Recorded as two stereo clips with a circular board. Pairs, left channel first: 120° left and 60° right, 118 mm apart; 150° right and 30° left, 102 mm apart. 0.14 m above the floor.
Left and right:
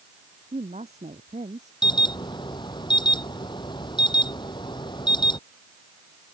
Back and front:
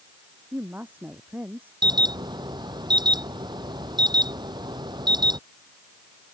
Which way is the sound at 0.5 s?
45° right.